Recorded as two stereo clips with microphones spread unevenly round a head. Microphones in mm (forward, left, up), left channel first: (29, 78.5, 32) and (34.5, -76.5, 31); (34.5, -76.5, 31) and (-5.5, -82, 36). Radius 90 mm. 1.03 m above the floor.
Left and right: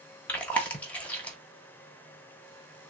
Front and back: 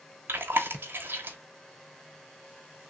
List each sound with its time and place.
0.3 s chewing: 170° left, 0.8 m